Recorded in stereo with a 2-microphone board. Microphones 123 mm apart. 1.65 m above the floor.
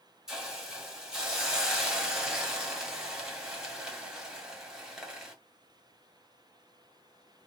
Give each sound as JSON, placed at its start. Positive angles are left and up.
{"t": 0.3, "sound": "a hiss", "side_deg": -5, "distance_m": 1.0}